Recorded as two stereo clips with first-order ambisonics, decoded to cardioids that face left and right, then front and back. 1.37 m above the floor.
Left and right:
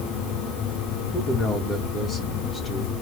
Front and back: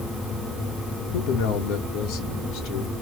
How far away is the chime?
No chime in this recording.